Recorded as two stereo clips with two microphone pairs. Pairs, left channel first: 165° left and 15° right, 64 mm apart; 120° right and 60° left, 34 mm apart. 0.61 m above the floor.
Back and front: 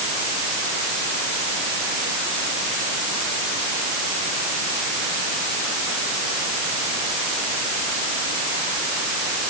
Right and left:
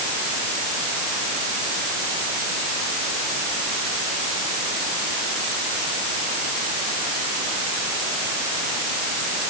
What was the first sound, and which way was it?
Only background noise.